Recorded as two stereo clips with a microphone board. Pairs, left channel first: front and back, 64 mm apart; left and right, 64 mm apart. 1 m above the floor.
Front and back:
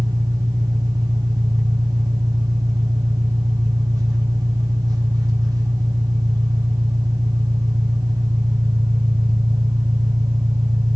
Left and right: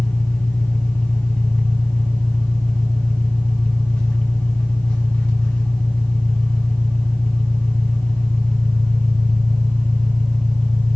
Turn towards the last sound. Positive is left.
turn(degrees=165)